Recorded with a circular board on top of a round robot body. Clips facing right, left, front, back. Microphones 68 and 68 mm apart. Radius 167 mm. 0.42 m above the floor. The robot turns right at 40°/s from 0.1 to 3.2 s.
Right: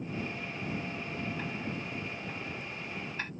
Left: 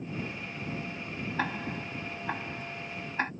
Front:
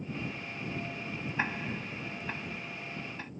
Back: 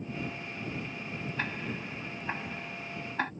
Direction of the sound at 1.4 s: 75° left.